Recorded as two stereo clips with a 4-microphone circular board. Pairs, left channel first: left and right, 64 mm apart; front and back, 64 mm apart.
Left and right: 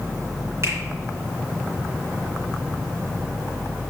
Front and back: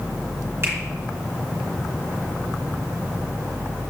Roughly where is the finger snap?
Behind right.